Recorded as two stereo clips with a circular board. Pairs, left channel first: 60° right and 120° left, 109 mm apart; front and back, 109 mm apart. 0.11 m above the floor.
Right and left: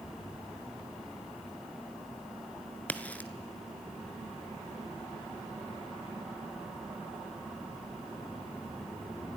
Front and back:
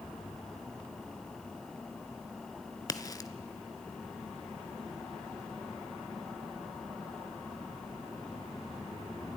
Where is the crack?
5° left, 0.7 m.